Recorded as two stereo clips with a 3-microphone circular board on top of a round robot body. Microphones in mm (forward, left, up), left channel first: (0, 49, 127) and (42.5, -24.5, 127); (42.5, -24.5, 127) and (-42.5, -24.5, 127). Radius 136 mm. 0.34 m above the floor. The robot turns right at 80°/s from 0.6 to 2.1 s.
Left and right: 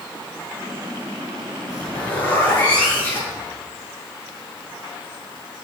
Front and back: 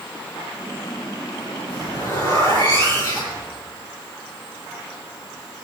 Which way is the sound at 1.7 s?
20° left.